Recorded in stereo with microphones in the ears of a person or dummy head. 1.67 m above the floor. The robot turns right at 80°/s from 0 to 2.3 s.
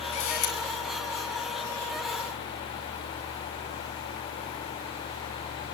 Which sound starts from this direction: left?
A camera shutter, at 0.1 s.